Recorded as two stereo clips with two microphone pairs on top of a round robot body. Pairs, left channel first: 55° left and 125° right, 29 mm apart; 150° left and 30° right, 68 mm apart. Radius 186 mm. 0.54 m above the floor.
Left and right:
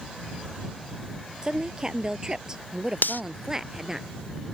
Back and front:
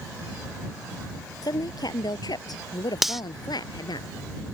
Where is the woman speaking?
175° left; by 4.0 s 165° left.